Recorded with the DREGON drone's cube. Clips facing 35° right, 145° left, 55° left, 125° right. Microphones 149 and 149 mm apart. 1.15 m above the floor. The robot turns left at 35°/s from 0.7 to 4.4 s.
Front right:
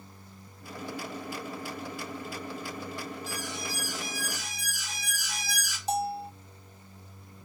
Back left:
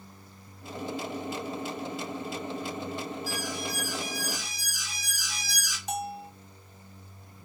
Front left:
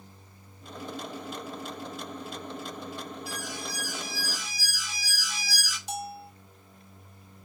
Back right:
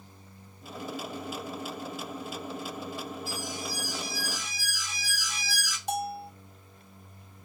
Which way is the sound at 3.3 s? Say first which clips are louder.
Back left 3 dB, back right 1 dB; 40° left.